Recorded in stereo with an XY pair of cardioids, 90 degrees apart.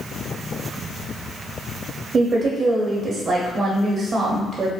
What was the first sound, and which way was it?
A woman speaking, 55° right.